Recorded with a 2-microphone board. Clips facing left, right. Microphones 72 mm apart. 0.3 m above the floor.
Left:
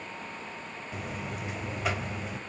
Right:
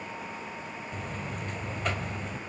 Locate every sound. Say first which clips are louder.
0.9 s a buzzer: left 2 dB; 5° left (ahead or behind), 1.4 m